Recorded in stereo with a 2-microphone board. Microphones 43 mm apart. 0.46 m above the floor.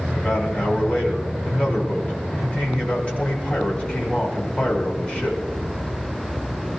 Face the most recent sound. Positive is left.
turn(degrees=20)  # may be behind; listen again after turning